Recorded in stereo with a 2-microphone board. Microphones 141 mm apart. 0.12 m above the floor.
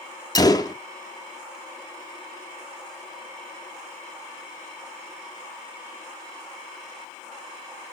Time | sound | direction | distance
0.3 | a gunshot | 25° left (ahead or behind) | 1.1 m